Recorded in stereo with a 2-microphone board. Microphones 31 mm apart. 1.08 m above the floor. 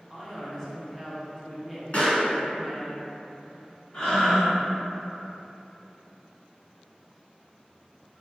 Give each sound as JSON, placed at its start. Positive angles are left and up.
{"t": 0.1, "sound": "a man speaking", "side_deg": 5, "distance_m": 0.8}
{"t": 1.9, "sound": "a pop", "side_deg": 45, "distance_m": 1.6}
{"t": 3.9, "sound": "breathing", "side_deg": 30, "distance_m": 1.9}